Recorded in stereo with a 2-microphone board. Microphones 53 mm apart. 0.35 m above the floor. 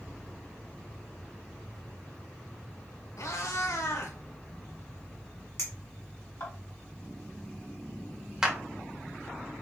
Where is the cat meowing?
80° left, 0.8 m.